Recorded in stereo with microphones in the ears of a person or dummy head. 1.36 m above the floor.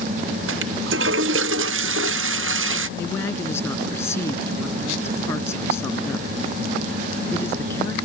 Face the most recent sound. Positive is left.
turn(degrees=20)  # may be behind; listen again after turning